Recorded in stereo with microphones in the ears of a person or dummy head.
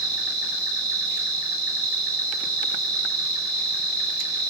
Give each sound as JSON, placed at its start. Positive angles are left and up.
{"t": 0.0, "sound": "an insect", "side_deg": -20, "distance_m": 3.5}